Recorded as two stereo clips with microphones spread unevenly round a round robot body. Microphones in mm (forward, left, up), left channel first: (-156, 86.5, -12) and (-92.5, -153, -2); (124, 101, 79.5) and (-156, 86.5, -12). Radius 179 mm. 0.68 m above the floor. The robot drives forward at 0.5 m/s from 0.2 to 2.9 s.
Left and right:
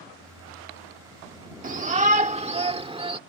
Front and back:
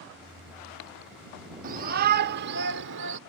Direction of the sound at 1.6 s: 130° right.